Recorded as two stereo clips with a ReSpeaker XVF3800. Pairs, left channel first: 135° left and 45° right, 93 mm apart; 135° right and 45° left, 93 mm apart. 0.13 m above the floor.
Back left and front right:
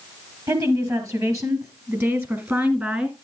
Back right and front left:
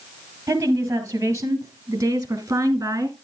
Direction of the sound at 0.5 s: 5° right.